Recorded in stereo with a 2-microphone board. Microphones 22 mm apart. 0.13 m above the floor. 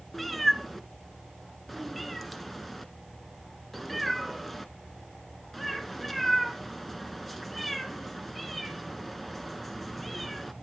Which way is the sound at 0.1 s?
5° left (ahead or behind).